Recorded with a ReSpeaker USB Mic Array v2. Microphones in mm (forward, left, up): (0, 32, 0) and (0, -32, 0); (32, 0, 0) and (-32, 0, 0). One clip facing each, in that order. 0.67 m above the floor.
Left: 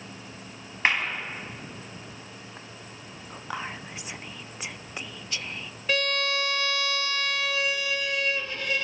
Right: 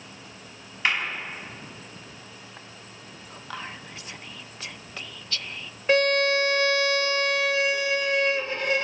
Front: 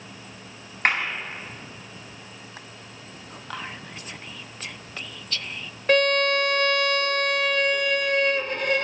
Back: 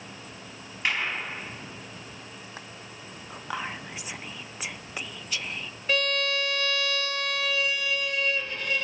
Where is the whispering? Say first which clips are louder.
Left 3 dB, back 2 dB; 125° left, 0.5 m.